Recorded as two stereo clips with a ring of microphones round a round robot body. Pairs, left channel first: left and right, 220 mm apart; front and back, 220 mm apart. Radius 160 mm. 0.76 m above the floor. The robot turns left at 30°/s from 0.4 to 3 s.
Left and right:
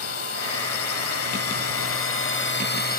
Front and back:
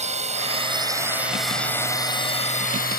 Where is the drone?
120° left; by 3.0 s 45° left.